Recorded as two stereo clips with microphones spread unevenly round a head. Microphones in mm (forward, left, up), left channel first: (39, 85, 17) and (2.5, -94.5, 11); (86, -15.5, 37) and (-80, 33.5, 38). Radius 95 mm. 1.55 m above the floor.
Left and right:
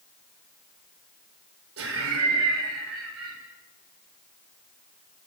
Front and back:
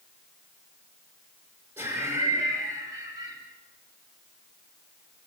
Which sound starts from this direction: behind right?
Laughter, at 1.8 s.